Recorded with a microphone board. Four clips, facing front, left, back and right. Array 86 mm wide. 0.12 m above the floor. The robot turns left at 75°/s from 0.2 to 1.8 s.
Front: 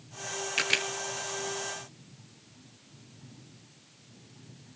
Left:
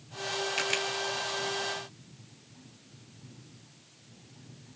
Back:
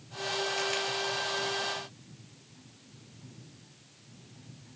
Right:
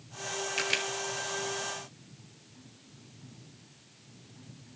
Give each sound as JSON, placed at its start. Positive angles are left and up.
{"t": 0.6, "sound": "a camera shutter", "azimuth_deg": 0, "distance_m": 1.4}